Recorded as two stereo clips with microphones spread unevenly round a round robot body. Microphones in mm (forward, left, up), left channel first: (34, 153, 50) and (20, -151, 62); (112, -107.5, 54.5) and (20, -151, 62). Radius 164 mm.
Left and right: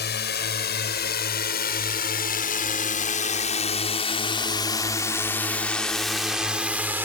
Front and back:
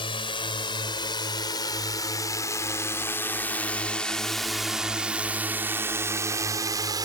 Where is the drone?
40° left; by 7.1 s 175° right.